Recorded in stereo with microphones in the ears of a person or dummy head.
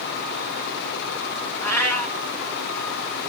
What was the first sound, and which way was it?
A cat meowing, 15° left (ahead or behind).